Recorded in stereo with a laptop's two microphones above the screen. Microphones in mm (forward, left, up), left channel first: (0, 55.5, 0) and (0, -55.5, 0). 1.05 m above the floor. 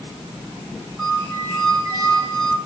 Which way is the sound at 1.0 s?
30° right (ahead or behind).